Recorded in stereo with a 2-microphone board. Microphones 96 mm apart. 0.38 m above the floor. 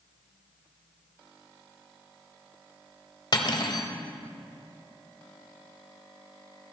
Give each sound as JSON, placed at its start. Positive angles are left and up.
{"t": 3.3, "sound": "cutlery clinking", "side_deg": 50, "distance_m": 0.9}